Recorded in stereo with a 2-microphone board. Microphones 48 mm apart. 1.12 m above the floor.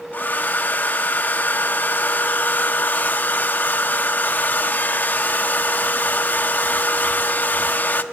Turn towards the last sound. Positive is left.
turn(degrees=40)  # may be behind; listen again after turning